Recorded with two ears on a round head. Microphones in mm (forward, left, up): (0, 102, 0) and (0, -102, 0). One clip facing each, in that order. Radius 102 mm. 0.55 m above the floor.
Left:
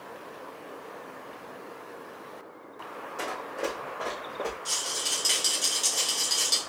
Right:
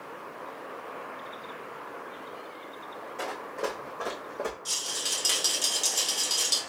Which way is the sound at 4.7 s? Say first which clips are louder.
Left 2 dB; 10° right (ahead or behind).